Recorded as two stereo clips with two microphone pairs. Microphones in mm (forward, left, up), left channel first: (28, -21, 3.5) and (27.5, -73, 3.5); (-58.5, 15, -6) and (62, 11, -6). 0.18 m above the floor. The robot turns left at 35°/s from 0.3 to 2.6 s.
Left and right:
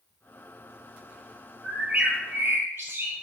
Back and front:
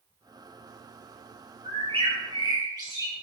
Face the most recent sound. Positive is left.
turn(degrees=-55)